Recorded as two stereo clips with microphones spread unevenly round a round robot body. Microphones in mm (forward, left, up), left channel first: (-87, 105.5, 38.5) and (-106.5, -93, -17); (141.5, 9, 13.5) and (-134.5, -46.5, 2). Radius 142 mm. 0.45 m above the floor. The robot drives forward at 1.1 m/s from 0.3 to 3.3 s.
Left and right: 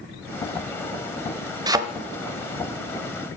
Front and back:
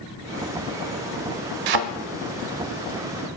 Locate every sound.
1.7 s a thud: 165° right, 0.6 m; by 1.8 s 170° right, 0.8 m